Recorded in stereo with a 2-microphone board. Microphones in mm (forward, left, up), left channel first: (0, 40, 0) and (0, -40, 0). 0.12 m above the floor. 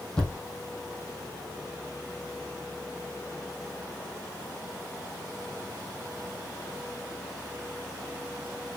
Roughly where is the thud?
Centre.